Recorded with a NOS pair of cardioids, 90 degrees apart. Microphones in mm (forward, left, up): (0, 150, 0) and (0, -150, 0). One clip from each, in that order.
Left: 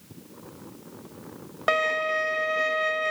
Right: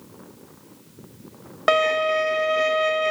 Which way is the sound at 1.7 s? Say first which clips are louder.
Right 5 dB; 30° right.